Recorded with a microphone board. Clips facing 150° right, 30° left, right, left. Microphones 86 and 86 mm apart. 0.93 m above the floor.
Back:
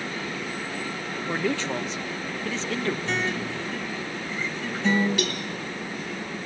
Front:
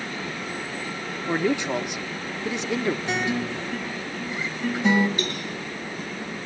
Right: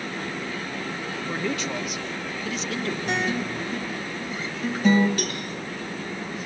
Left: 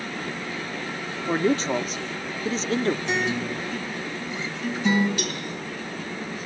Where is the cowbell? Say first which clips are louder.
Back 1 dB, right 1 dB; 130° right, 5 m.